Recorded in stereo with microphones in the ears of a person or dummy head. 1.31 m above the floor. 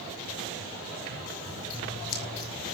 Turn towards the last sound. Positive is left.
turn(degrees=70)  # may be behind; listen again after turning